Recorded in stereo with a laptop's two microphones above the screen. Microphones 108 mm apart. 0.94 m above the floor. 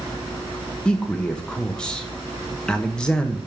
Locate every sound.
0.8 s a man speaking: 10° left (ahead or behind), 1.0 m